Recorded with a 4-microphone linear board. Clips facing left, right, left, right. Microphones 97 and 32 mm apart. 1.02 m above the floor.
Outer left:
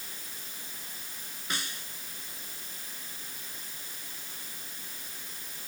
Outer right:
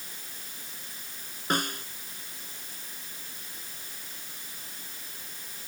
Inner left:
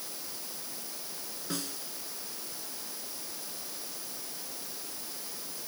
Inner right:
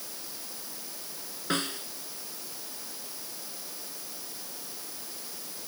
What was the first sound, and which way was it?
A snare drum, 50° right (ahead or behind).